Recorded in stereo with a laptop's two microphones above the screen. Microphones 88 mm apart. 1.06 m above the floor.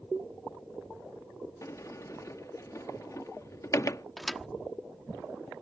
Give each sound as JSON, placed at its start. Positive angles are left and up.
{"t": 1.6, "sound": "a sliding door", "side_deg": 40}
{"t": 4.2, "sound": "a thud", "side_deg": 0}